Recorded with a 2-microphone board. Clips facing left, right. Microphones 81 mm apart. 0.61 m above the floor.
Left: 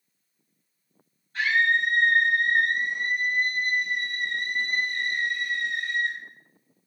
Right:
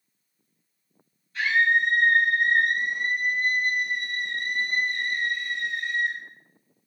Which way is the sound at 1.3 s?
50° left (ahead or behind).